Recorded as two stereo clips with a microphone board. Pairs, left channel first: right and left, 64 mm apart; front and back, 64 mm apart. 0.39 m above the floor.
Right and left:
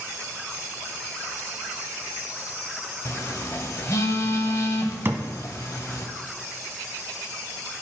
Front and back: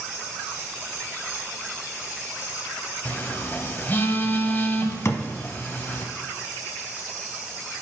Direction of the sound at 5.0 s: 40° left.